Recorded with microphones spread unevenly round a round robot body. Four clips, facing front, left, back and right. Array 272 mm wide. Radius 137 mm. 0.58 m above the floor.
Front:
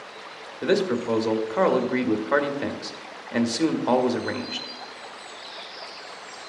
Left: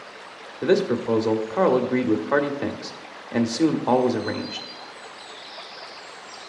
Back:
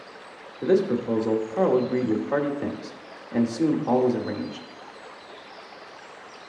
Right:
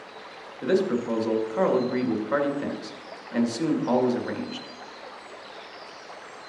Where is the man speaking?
90° left, 1.1 m.